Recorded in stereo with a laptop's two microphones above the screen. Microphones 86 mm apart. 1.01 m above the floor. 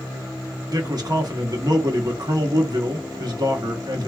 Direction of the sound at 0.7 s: 50° right (ahead or behind).